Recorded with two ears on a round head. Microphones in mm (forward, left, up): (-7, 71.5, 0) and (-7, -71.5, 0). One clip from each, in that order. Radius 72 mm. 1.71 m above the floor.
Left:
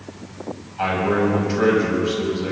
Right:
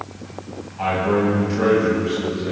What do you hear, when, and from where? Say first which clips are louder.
0.8 s a man speaking: even; 45° left (ahead or behind), 8.5 m